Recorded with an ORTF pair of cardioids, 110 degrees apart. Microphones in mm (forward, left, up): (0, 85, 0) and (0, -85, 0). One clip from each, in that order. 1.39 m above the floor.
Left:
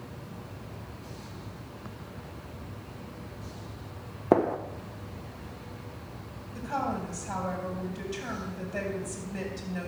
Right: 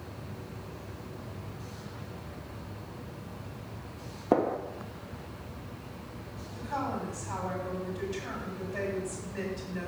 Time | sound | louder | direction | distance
4.3 | a gunshot | left 3 dB | 15° left | 1.1 m
6.5 | a woman speaking | left 2 dB | 45° left | 7.5 m